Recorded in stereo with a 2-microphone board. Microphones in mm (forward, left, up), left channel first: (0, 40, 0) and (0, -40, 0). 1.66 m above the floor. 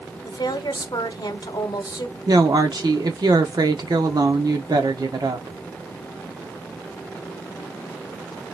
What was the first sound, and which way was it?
A woman speaking, 65° left (ahead or behind).